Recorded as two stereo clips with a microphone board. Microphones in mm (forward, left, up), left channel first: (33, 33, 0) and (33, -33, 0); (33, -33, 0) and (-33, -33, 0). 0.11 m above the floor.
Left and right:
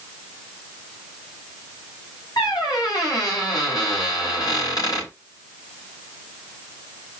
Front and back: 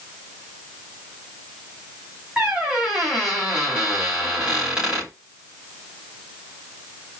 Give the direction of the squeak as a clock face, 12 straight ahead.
9 o'clock.